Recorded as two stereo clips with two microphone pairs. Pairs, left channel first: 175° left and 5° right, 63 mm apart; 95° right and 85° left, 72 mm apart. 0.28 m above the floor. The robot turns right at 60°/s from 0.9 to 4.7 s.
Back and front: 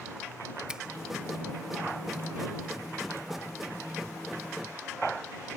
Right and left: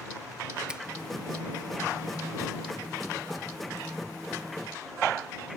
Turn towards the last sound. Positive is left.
turn(degrees=-90)